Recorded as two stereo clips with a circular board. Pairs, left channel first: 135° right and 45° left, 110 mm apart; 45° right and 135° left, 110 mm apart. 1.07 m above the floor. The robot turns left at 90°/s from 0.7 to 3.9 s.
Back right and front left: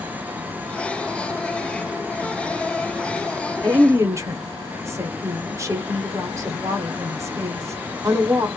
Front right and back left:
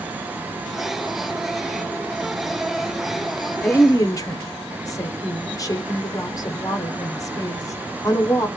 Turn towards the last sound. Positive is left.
turn(degrees=-5)